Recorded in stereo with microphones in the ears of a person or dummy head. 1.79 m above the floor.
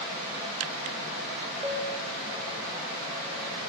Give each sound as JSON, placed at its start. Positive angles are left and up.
{"t": 1.6, "sound": "a piano", "side_deg": -10, "distance_m": 7.0}